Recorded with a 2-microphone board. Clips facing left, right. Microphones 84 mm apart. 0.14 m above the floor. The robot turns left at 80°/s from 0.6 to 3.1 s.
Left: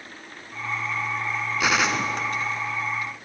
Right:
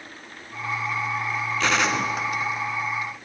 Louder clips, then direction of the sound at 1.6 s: Even; 10° left (ahead or behind).